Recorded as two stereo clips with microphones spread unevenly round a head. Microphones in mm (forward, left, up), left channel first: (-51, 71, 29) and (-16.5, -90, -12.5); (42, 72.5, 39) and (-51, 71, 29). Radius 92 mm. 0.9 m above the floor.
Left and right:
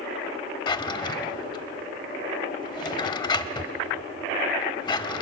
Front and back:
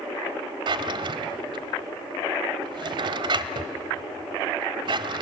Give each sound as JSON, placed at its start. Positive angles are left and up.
{"t": 0.7, "sound": "a drawer", "azimuth_deg": 155, "distance_m": 1.1}